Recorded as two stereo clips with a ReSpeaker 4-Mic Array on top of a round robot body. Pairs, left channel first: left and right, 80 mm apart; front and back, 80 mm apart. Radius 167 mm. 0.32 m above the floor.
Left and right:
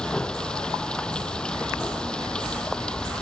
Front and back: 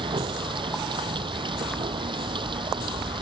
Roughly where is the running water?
Behind.